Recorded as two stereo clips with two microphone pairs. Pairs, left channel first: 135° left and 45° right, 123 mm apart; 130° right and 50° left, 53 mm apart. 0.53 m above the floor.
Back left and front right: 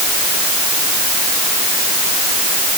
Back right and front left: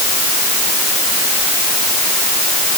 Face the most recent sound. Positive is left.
No sound to turn to.